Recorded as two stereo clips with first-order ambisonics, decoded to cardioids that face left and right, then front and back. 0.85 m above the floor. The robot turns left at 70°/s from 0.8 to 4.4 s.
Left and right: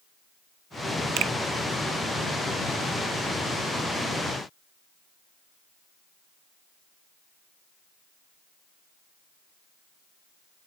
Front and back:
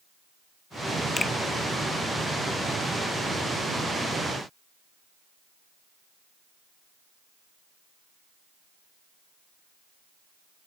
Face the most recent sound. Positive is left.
turn(degrees=60)